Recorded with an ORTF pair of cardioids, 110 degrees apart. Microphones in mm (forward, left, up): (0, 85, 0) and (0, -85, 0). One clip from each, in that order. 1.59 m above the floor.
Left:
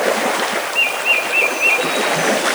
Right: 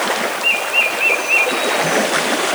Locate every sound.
Only background noise.